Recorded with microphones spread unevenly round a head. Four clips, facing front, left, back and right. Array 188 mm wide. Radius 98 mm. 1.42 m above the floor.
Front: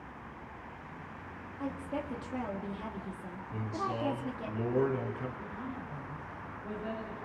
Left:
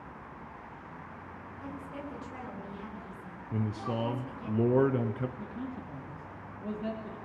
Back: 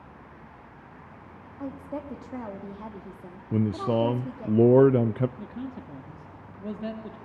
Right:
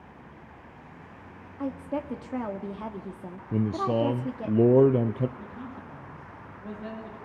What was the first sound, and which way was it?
A woman speaking, 105° right.